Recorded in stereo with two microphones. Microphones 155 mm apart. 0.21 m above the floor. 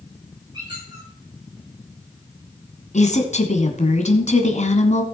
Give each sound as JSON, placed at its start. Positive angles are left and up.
{"t": 0.5, "sound": "a squeak", "side_deg": -30, "distance_m": 8.5}
{"t": 2.9, "sound": "a woman speaking", "side_deg": 50, "distance_m": 2.0}